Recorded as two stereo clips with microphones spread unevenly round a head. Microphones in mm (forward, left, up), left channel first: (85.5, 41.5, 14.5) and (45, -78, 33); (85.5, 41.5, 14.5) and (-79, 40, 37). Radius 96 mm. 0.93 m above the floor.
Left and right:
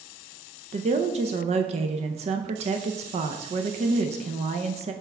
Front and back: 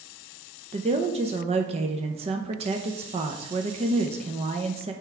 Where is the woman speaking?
130° right, 0.5 m.